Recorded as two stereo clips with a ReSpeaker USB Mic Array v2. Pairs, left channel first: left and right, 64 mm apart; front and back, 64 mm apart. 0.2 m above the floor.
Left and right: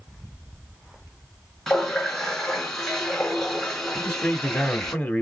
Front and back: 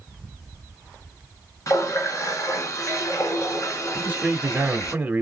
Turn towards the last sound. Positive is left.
turn(degrees=135)